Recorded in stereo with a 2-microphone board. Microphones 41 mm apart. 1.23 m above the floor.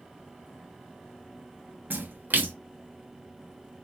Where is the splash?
50° right (ahead or behind), 0.5 m.